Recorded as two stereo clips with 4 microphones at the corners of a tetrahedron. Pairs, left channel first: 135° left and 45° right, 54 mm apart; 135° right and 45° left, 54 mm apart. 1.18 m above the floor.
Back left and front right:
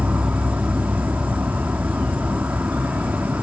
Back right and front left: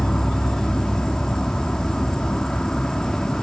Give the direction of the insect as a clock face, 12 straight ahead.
2 o'clock.